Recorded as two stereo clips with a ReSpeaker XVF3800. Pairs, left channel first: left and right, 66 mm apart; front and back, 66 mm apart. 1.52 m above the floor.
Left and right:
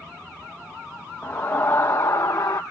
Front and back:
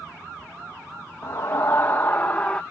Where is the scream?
40° left; by 2.6 s 70° left.